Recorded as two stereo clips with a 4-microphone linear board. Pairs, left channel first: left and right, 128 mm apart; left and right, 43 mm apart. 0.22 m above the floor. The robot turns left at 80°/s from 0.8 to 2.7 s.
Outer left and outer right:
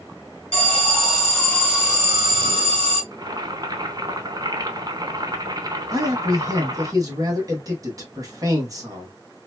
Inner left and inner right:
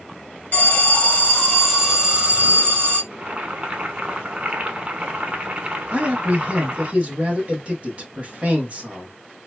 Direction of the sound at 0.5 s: 80° left.